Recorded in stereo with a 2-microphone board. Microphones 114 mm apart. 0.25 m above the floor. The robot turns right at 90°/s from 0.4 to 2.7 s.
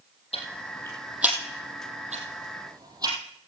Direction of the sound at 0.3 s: 65° left (ahead or behind).